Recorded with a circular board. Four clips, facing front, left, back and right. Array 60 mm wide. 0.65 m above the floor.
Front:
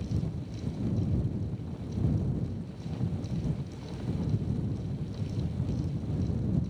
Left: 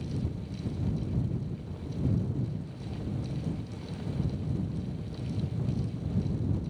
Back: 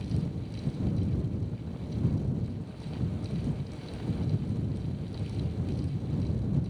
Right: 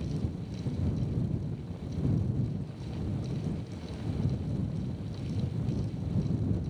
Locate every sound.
Only background noise.